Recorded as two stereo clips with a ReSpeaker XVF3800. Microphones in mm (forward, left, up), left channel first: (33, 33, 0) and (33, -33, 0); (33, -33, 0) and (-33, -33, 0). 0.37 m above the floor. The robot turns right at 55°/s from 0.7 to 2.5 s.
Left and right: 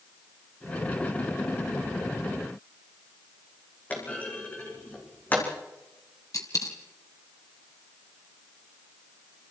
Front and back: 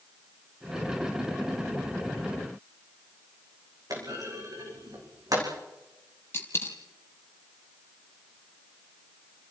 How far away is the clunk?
About 5.5 m.